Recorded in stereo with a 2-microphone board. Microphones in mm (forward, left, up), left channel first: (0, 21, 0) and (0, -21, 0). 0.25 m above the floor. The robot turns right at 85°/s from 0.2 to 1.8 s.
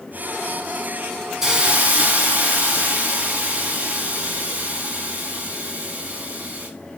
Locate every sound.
1.4 s a hiss: 170° right, 2.0 m; by 6.7 s 135° right, 2.0 m